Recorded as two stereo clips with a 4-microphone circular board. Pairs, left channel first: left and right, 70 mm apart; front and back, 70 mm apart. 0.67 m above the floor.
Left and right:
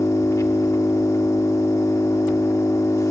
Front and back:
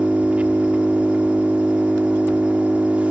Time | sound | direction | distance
0.0 | an engine running | 115° left | 1.2 m